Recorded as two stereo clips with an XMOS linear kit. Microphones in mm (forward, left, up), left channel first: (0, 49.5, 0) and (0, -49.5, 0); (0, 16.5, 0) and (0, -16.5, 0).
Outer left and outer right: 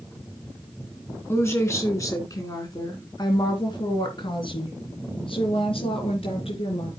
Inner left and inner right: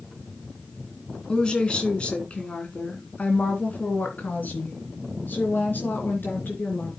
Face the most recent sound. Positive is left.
turn(degrees=70)  # may be behind; listen again after turning